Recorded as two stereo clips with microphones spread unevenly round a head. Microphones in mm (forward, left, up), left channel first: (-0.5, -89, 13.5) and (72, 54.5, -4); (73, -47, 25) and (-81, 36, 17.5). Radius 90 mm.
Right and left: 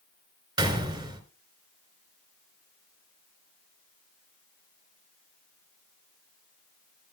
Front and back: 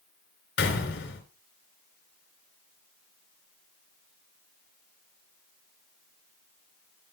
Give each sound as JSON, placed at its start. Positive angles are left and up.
{"t": 0.6, "sound": "a gunshot", "azimuth_deg": 0, "distance_m": 3.5}